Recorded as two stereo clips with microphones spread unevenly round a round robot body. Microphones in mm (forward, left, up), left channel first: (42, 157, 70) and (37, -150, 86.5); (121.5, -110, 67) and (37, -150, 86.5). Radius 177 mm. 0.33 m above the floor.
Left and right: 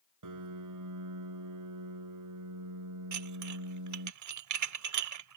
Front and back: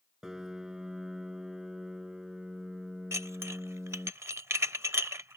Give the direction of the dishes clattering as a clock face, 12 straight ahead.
3 o'clock.